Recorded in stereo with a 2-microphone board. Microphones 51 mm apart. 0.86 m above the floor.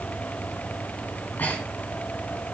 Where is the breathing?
40° left (ahead or behind), 4 m.